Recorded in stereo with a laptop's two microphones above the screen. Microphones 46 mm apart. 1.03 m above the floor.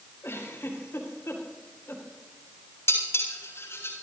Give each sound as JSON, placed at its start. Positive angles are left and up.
{"t": 0.2, "sound": "a giggle", "side_deg": 75, "distance_m": 4.5}
{"t": 2.9, "sound": "dishes clattering", "side_deg": 80, "distance_m": 7.0}